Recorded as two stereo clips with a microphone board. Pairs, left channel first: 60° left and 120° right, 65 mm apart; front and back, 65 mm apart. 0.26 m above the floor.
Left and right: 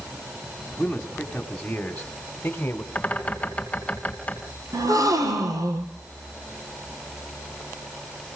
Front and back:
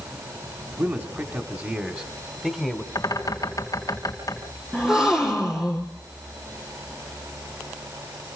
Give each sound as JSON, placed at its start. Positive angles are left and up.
{"t": 0.8, "sound": "a man speaking", "azimuth_deg": 145, "distance_m": 2.5}
{"t": 3.0, "sound": "a bird", "azimuth_deg": -5, "distance_m": 3.0}
{"t": 4.7, "sound": "a gasp", "azimuth_deg": -100, "distance_m": 4.5}